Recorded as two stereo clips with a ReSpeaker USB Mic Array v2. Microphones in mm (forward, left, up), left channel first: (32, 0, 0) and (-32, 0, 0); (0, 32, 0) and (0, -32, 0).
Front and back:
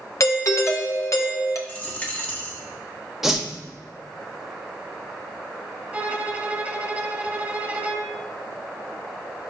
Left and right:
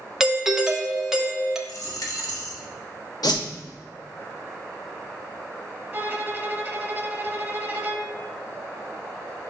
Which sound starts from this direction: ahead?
A doorbell, at 0.2 s.